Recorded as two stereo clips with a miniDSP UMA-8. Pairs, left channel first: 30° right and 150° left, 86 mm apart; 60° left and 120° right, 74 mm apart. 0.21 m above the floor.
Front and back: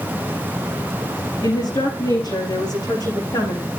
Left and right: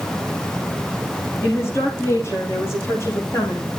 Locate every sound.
1.4 s a woman speaking: 5° left, 10 m; by 3.7 s 10° left, 11 m